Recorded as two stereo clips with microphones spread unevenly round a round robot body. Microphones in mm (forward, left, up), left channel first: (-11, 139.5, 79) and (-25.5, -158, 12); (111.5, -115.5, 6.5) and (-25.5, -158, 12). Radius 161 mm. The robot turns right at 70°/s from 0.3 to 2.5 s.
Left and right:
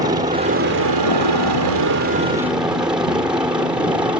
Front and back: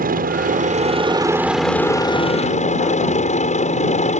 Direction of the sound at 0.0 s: 165° right.